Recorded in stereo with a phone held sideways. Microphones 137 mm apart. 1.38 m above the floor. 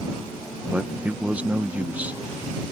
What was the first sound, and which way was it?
A man speaking, 10° right (ahead or behind).